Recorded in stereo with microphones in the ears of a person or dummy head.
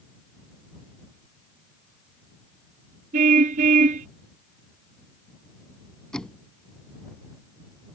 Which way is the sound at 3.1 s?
50° right (ahead or behind).